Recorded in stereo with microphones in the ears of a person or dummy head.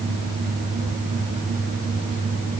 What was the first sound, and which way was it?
Only background noise.